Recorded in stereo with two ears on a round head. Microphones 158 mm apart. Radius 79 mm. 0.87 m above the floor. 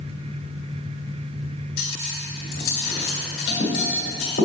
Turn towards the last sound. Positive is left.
turn(degrees=55)  # may be behind; listen again after turning